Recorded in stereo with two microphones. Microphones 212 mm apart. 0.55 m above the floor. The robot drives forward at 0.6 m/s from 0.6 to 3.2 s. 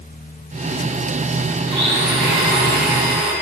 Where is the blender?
55° right (ahead or behind), 1.8 m.